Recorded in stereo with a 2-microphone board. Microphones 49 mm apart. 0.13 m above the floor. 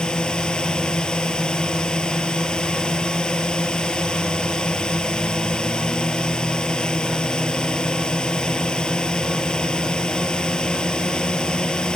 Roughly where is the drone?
Centre.